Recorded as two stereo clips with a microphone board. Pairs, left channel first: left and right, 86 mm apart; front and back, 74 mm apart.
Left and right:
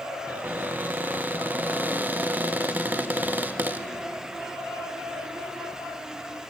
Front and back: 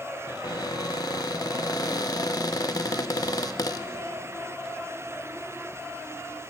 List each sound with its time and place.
0.3 s a cupboard door: 20° right, 1.0 m